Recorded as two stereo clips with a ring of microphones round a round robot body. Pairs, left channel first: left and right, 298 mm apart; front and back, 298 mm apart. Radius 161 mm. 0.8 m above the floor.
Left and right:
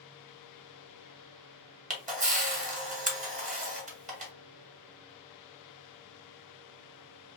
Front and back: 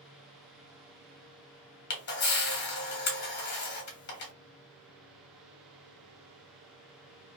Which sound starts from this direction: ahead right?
A camera shutter, at 1.9 s.